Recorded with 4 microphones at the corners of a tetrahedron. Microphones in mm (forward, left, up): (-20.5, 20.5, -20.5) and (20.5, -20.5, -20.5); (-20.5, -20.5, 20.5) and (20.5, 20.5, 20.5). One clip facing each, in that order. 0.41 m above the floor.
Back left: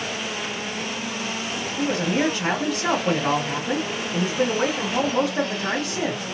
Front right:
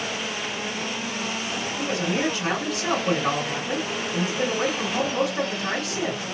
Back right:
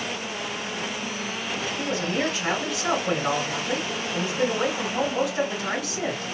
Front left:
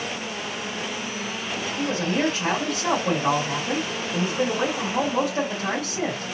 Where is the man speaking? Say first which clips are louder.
Back left 4 dB, front left 3 dB; 85° left, 2.5 m.